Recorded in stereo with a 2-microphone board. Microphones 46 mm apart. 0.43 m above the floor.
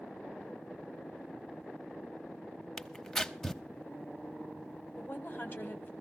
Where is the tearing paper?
10° left (ahead or behind), 0.6 m.